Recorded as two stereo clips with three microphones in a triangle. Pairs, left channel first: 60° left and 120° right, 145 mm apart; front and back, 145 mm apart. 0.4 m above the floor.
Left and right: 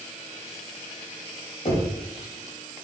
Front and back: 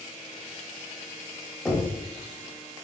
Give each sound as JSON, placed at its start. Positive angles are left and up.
{"t": 1.6, "sound": "knocking", "azimuth_deg": 90, "distance_m": 1.2}